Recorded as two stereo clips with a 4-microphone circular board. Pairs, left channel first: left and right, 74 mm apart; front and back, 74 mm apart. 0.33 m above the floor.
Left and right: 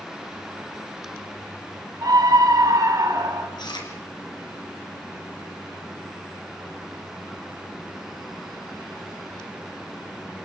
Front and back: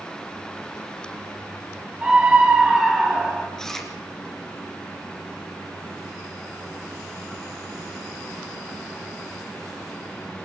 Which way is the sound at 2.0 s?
110° right.